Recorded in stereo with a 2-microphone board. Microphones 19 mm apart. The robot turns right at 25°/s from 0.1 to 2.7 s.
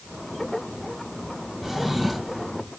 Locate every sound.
1.6 s a drawer: 10° right (ahead or behind), 2.5 m; by 2.5 s 10° left (ahead or behind), 2.5 m